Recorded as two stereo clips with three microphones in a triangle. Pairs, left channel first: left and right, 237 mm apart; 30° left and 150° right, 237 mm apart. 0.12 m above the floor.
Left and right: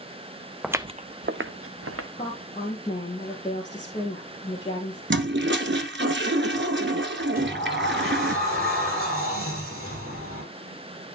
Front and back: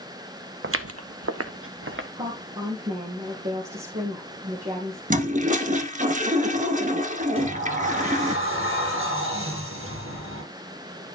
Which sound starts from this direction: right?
A toilet flushing, at 5.1 s.